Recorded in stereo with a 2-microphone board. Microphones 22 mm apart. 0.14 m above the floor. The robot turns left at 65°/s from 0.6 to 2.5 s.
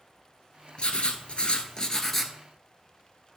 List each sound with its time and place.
0.8 s writing: 105° left, 0.9 m; by 2.3 s 5° left, 0.9 m